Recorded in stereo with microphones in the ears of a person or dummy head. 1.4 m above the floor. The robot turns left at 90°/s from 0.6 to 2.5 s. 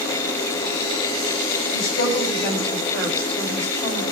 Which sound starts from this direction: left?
A woman speaking, at 1.7 s.